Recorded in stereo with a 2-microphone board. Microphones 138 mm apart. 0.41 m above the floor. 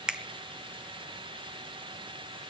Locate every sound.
0.1 s a finger snap: 5° right (ahead or behind), 0.8 m